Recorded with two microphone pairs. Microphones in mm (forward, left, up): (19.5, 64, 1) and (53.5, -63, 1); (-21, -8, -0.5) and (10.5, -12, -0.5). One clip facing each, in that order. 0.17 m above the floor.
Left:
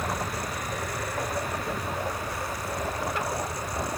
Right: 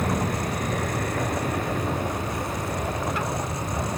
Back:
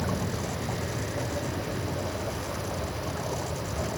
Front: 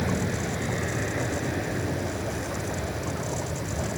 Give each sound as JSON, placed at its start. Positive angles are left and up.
{"t": 0.0, "sound": "an aircraft", "azimuth_deg": -50}